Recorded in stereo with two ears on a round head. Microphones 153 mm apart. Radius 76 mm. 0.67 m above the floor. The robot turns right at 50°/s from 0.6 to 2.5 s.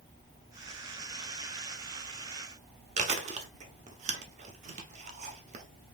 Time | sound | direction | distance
3.0 | chewing | 40° right (ahead or behind) | 0.8 m